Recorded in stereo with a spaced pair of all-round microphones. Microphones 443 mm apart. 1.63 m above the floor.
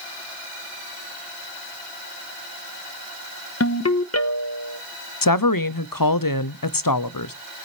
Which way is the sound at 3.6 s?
35° left (ahead or behind).